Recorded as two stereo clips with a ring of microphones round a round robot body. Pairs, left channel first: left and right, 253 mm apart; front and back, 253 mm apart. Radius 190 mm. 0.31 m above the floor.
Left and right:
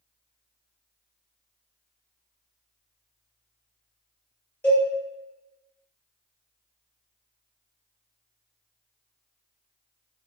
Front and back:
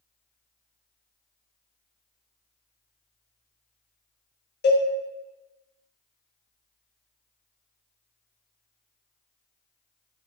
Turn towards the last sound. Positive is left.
turn(degrees=10)